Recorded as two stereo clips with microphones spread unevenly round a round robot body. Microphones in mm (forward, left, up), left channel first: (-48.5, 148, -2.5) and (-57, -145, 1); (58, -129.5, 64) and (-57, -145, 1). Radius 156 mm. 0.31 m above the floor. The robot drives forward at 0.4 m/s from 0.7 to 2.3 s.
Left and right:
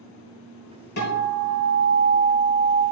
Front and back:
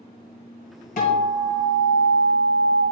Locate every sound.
1.0 s a guitar: 35° left, 2.5 m; by 2.8 s 45° left, 2.0 m